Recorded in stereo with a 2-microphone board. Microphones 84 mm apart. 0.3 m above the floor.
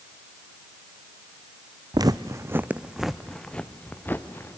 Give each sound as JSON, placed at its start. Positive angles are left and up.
{"t": 1.9, "sound": "footsteps", "side_deg": -55, "distance_m": 0.8}